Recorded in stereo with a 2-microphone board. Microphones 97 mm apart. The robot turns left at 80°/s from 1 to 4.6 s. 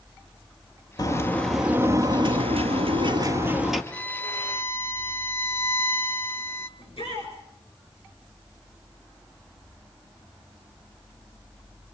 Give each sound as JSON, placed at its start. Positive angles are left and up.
{"t": 1.0, "sound": "a bird", "azimuth_deg": 45, "distance_m": 1.6}
{"t": 3.9, "sound": "a violin", "side_deg": 15, "distance_m": 0.8}
{"t": 6.8, "sound": "a shout", "side_deg": 80, "distance_m": 8.0}